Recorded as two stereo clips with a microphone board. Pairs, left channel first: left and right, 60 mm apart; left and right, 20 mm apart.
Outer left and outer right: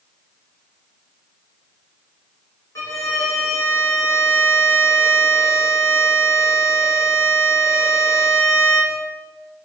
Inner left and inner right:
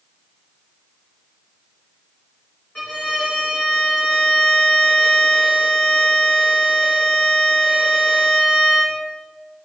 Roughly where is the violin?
Left.